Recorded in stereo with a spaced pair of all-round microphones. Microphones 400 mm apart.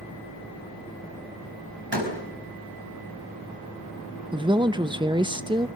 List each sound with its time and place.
1.9 s a door slam: 70° right (ahead or behind), 4.5 m
4.3 s a woman speaking: 10° right (ahead or behind), 0.7 m